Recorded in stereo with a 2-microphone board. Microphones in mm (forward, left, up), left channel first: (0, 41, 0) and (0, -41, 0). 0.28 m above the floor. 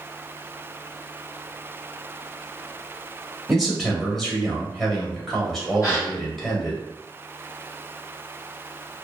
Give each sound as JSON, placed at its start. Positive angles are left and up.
{"t": 3.5, "sound": "a man speaking", "side_deg": 0, "distance_m": 0.9}
{"t": 5.8, "sound": "a gasp", "side_deg": 40, "distance_m": 1.7}